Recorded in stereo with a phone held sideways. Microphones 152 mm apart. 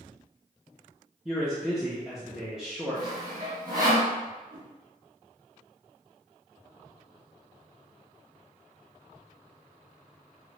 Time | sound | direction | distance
1.2 | a man speaking | 5° right (ahead or behind) | 0.6 m
3.0 | sawing | 25° right (ahead or behind) | 1.9 m
4.5 | a whoosh | 30° right (ahead or behind) | 1.8 m